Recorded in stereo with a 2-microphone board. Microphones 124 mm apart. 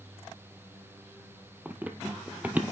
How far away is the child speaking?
I don't hear a child speaking.